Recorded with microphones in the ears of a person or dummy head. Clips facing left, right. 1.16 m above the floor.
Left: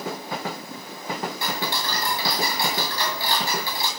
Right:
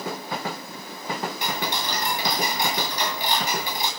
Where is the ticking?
20° right (ahead or behind), 1.9 m.